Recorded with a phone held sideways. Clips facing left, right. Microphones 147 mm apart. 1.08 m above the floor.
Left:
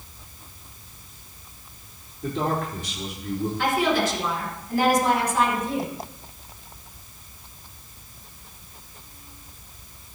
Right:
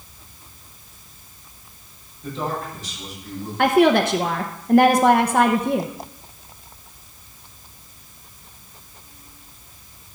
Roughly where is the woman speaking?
Right.